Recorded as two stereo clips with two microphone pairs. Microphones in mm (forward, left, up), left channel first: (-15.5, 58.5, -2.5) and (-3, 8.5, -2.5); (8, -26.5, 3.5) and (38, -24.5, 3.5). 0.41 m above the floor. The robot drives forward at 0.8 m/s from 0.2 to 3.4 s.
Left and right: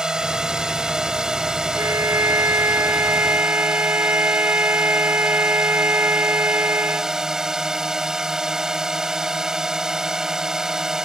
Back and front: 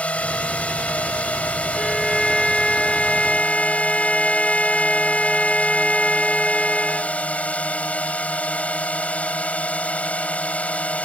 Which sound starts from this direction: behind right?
A drone, at 0.0 s.